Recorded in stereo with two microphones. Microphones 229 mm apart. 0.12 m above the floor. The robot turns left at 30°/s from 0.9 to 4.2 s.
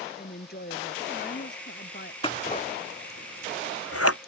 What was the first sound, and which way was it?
A woman speaking, 115° left.